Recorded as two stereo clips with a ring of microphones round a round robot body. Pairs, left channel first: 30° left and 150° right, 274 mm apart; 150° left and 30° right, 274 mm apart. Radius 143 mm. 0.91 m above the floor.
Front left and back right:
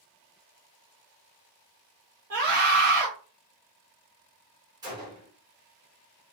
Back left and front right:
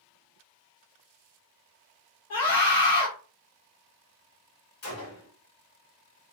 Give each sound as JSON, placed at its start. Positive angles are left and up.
{"t": 2.3, "sound": "a scream", "azimuth_deg": 180, "distance_m": 0.9}
{"t": 4.8, "sound": "a gunshot", "azimuth_deg": 135, "distance_m": 1.3}